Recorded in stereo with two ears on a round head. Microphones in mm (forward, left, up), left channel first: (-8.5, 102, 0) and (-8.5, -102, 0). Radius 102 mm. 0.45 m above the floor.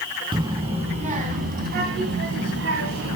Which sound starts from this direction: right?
A child speaking, at 0.3 s.